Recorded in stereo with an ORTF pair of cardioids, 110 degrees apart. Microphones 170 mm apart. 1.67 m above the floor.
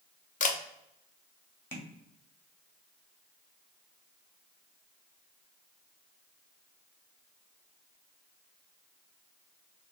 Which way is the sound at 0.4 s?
55° left.